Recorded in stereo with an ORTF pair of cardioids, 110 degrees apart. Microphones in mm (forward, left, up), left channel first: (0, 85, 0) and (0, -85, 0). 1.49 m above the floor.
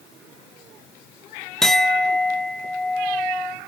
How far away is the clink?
About 1.1 m.